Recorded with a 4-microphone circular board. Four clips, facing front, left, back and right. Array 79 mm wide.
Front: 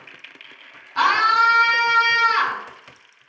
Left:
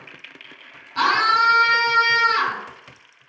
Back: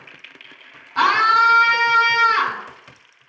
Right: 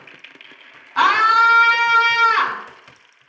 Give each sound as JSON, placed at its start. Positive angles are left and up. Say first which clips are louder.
{"t": 1.0, "sound": "a scream", "louder": "right 4 dB, back 2 dB", "azimuth_deg": -105, "distance_m": 1.9}